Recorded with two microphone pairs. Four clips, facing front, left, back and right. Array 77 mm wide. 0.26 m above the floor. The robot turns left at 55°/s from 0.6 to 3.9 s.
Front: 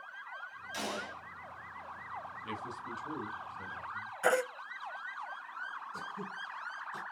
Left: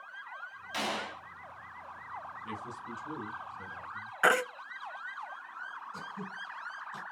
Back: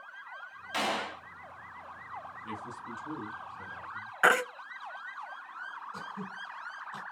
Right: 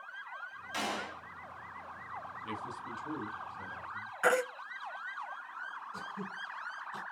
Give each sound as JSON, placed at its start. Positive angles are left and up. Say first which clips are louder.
{"t": 0.7, "sound": "a gunshot", "louder": "left 2 dB, back 7 dB", "azimuth_deg": 180, "distance_m": 0.8}
{"t": 2.4, "sound": "a man speaking", "louder": "even, even", "azimuth_deg": -30, "distance_m": 1.8}
{"t": 4.2, "sound": "a baby crying", "louder": "left 2 dB, back 5 dB", "azimuth_deg": 160, "distance_m": 0.9}
{"t": 5.9, "sound": "throat clearing", "louder": "even, back 1 dB", "azimuth_deg": -155, "distance_m": 2.5}